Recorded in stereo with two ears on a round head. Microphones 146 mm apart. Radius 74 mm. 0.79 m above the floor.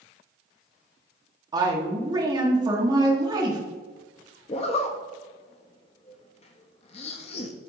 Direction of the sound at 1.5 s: 25° right (ahead or behind).